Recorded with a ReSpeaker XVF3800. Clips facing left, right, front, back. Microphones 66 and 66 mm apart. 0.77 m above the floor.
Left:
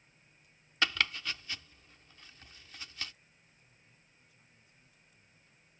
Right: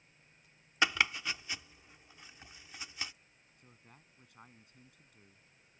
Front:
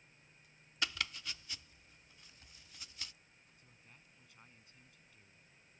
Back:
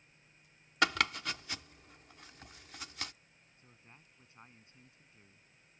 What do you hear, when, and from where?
0.8 s chopping: 165° right
3.6 s a man speaking: 120° right